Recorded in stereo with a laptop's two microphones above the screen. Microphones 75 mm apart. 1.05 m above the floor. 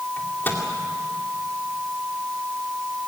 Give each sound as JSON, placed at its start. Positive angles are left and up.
{"t": 0.2, "sound": "a microwave", "side_deg": 25, "distance_m": 2.0}